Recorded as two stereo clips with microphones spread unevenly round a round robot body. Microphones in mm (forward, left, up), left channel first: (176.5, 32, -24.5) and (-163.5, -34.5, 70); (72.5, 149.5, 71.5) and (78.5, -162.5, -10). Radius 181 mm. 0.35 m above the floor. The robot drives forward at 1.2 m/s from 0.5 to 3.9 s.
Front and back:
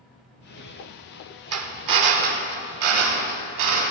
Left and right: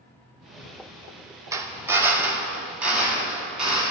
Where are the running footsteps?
No running footsteps in this recording.